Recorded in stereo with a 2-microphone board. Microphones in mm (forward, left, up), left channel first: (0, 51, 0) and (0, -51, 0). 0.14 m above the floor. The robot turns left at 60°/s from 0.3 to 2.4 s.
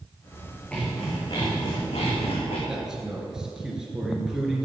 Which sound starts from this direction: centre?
A man speaking, at 2.7 s.